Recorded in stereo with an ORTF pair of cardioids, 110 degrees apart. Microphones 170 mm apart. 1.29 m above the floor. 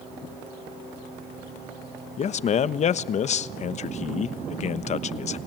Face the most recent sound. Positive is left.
turn(degrees=45)